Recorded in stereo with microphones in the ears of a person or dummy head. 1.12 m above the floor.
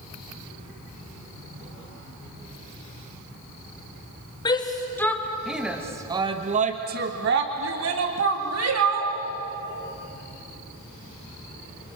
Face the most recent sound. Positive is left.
turn(degrees=-80)